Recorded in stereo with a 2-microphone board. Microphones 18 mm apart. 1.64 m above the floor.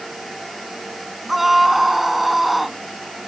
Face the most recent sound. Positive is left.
turn(degrees=-15)  # may be behind; listen again after turning